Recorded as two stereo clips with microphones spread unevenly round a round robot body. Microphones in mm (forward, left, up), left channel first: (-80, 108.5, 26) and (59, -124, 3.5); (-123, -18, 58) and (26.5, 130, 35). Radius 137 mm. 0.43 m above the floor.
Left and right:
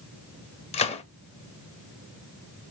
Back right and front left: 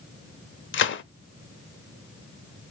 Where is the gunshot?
170° right, 0.7 m.